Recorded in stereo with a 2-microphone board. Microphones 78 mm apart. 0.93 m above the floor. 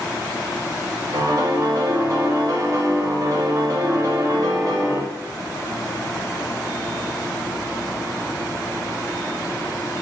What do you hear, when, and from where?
1.1 s a piano: 55° right (ahead or behind), 0.9 m